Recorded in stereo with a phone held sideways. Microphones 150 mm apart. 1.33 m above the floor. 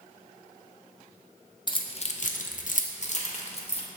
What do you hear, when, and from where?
1.7 s keys jangling: 30° left (ahead or behind), 0.6 m; by 3.8 s 40° left (ahead or behind), 1.1 m